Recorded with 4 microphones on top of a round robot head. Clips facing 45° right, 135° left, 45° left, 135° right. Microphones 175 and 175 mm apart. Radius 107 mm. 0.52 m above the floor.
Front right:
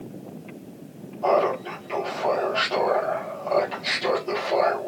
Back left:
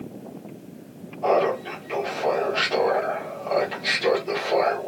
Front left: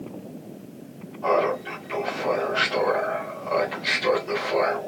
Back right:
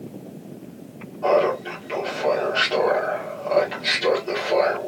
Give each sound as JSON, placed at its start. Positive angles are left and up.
{"t": 1.2, "sound": "laughter", "azimuth_deg": -150, "distance_m": 1.7}